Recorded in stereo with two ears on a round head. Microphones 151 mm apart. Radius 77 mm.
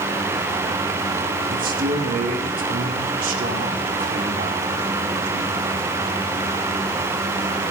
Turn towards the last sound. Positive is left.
turn(degrees=-60)  # may be behind; listen again after turning